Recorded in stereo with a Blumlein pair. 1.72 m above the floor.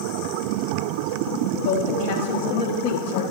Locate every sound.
1.6 s a woman speaking: 40° left, 0.7 m